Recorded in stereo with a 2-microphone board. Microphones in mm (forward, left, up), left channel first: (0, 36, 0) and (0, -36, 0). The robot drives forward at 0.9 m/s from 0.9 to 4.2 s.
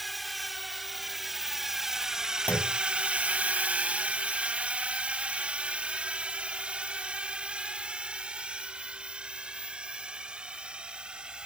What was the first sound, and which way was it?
A drone, centre (ahead or behind).